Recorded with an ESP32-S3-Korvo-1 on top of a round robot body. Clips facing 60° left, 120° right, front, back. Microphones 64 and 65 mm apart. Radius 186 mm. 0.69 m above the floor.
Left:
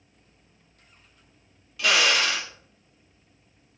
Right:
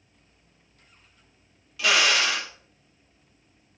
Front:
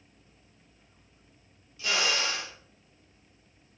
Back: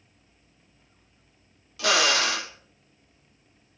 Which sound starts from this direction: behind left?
A drill, at 1.8 s.